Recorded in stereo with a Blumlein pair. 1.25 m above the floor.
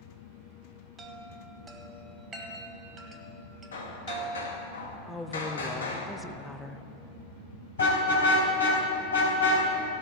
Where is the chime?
20° right, 1.9 m.